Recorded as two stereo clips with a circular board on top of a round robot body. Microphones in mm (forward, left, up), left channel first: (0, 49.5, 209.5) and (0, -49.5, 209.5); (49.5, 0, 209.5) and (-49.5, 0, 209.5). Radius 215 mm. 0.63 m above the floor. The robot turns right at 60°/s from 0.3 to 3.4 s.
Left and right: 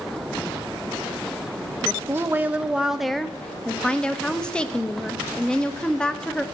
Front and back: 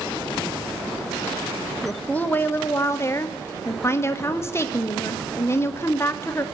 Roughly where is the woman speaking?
Right.